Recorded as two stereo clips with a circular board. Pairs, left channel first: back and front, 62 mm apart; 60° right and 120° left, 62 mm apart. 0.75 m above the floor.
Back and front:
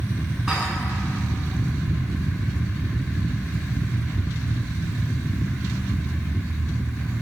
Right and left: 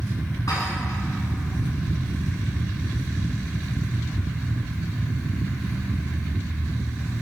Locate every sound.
0.5 s dishes clattering: 85° right, 5 m